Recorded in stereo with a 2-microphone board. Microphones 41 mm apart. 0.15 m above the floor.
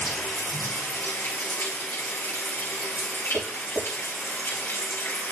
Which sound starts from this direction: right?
Tapping, at 3.3 s.